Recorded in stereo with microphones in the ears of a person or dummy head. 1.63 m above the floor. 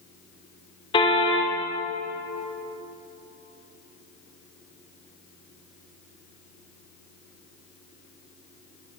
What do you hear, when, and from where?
0.9 s a car horn: 25° left (ahead or behind), 3 m